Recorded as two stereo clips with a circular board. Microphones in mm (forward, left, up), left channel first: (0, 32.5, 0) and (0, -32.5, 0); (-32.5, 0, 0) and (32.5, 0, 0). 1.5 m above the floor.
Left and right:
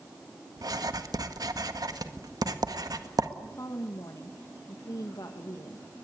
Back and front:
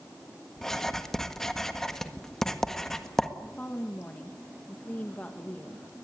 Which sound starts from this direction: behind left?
A woman speaking, at 3.4 s.